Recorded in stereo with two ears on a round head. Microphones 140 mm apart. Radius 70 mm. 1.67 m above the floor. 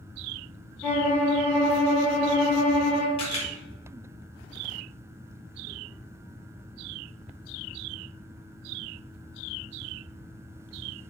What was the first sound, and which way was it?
A violin, 10° left (ahead or behind).